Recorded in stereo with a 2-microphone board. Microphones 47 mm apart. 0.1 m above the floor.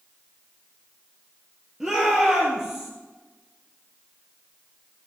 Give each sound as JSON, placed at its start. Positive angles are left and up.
{"t": 1.8, "sound": "a shout", "side_deg": -10, "distance_m": 3.0}